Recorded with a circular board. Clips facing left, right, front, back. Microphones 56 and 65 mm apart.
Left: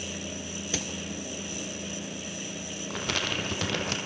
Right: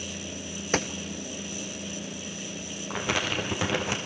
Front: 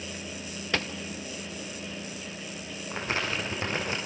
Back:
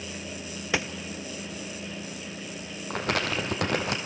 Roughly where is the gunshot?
Right.